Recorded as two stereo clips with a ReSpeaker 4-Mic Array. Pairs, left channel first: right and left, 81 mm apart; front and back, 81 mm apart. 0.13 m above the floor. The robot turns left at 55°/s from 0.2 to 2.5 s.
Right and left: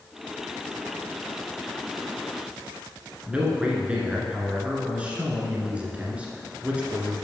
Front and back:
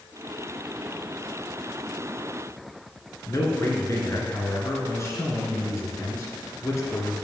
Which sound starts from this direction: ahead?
A man speaking, at 3.3 s.